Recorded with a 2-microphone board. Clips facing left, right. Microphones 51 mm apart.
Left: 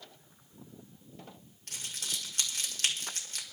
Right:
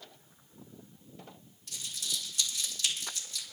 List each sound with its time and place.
1.7 s crumpling: 60° left (ahead or behind), 1.9 m